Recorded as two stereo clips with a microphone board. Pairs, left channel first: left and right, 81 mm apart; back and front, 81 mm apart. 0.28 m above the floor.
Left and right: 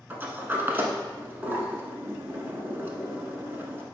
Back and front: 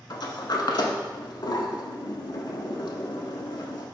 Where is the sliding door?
155° right, 0.5 m.